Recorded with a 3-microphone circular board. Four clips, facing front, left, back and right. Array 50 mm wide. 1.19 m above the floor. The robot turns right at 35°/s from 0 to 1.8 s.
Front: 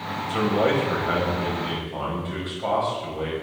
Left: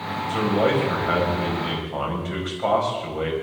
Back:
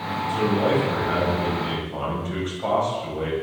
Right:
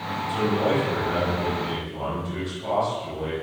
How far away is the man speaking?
About 7 m.